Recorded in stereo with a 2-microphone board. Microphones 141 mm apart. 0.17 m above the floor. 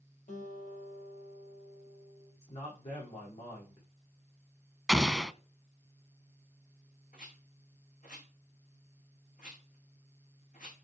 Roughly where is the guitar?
Left.